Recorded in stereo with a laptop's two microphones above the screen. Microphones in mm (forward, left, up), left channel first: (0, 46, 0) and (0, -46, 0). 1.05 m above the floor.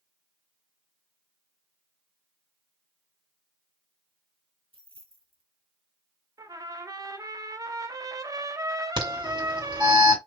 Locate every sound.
4.7 s keys jangling: 80° right, 1.7 m
6.4 s a trumpet: 40° right (ahead or behind), 0.7 m
9.0 s an alarm: 65° right (ahead or behind), 3 m